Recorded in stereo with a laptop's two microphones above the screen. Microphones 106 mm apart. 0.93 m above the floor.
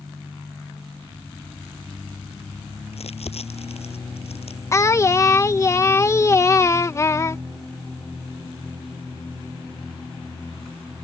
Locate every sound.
2.9 s crumpling: 75° left (ahead or behind)
4.7 s singing: 30° left (ahead or behind)